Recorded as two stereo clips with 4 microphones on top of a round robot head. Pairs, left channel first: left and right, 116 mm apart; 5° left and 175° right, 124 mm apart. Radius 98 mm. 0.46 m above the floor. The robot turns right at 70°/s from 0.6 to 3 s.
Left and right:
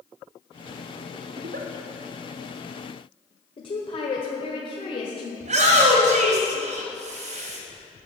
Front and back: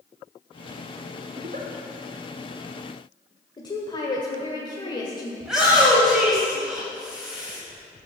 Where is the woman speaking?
55° left, 1.7 m.